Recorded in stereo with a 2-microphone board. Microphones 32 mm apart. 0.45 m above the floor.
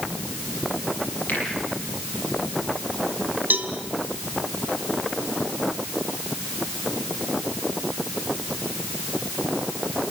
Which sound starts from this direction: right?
A cowbell, at 3.5 s.